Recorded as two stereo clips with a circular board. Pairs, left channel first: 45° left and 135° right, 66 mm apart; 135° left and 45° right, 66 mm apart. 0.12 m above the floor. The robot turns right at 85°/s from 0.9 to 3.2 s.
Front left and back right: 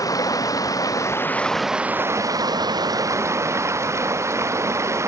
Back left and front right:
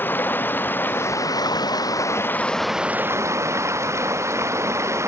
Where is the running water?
75° left; by 5.1 s 90° right.